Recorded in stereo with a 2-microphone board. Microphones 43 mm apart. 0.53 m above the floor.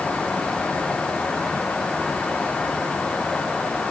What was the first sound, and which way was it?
Only background noise.